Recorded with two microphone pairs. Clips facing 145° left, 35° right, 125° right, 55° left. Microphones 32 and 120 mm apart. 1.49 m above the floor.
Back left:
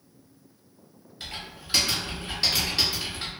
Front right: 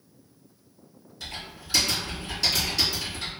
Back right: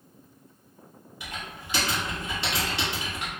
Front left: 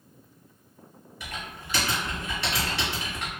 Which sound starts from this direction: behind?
Typing on a keyboard, at 1.2 s.